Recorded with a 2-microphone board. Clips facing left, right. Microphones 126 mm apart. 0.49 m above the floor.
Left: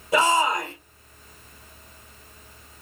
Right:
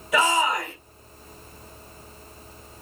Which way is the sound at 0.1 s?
35° left (ahead or behind).